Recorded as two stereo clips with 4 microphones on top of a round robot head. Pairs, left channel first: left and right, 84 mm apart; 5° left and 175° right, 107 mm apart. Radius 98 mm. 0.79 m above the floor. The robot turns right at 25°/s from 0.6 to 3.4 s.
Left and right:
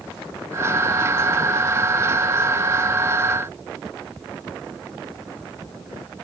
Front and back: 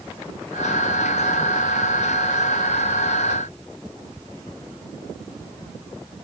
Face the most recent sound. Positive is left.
No sound to turn to.